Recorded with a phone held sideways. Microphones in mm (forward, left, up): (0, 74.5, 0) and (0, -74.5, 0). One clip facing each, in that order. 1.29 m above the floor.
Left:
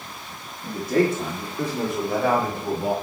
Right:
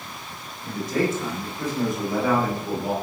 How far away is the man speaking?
About 2.5 m.